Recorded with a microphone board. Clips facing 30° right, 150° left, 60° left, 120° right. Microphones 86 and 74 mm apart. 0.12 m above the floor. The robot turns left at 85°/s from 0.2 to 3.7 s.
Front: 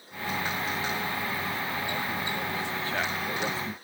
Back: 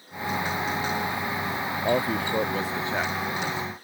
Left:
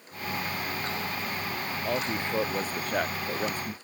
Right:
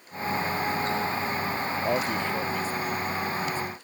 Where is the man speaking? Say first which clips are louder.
Back 7 dB, right 2 dB; 170° left; by 3.7 s 10° left.